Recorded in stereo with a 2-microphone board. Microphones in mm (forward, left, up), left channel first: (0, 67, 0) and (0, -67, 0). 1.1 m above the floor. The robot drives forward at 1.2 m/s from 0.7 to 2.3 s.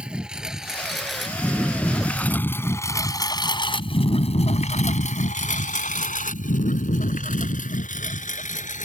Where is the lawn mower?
5° right (ahead or behind); by 8.9 s 70° left (ahead or behind).